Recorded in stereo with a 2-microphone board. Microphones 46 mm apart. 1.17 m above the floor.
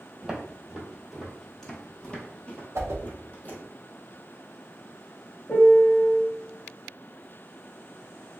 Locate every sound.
0.2 s footsteps: 15° right (ahead or behind), 1.4 m; by 3.6 s 35° left (ahead or behind), 1.6 m
2.8 s a whoosh: 75° right (ahead or behind), 0.6 m
5.5 s a piano: 35° left (ahead or behind), 1.0 m